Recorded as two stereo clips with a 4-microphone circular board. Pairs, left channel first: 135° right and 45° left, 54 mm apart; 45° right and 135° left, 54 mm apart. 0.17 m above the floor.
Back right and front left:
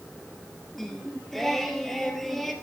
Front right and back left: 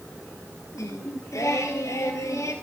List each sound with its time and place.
0.8 s singing: 50° right, 1.6 m